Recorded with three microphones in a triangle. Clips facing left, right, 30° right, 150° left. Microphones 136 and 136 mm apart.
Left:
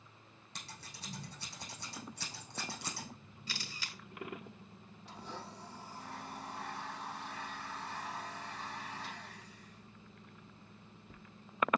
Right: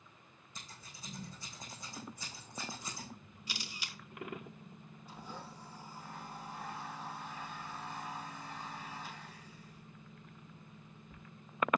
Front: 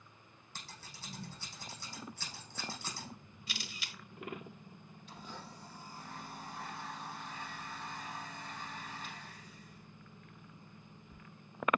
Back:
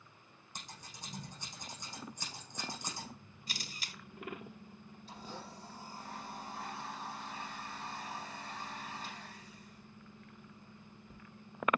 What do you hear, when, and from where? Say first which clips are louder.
0.6 s scissors: left 2 dB, back 1 dB; 75° left, 6 m
3.5 s a camera shutter: even, even; 165° right, 1.2 m
5.1 s a blender: left 1 dB, back 2 dB; 95° left, 7 m